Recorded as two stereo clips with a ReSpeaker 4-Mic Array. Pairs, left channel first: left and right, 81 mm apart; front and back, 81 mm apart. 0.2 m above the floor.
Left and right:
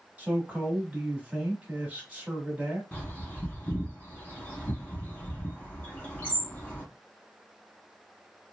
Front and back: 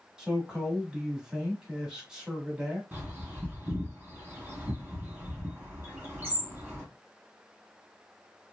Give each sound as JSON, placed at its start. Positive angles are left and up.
{"t": 0.2, "sound": "a man speaking", "azimuth_deg": -115, "distance_m": 1.0}
{"t": 2.9, "sound": "a bird", "azimuth_deg": 135, "distance_m": 1.4}